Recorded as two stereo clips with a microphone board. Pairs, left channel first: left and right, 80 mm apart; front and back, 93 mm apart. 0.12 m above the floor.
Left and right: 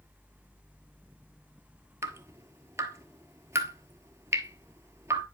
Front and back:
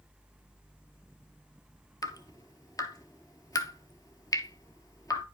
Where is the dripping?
40° right, 0.8 m.